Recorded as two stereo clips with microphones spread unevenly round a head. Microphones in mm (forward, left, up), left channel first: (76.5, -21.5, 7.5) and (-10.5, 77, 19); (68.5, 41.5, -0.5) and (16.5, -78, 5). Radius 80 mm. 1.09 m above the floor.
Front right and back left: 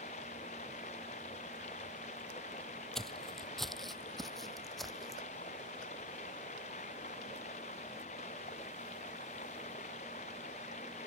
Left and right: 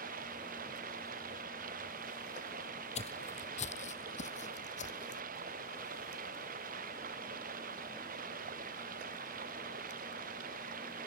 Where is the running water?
100° right.